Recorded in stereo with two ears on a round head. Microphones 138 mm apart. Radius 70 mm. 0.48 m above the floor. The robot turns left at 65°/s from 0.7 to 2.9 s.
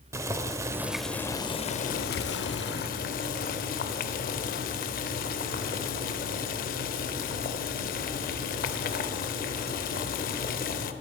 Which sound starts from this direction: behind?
Boiling, at 0.1 s.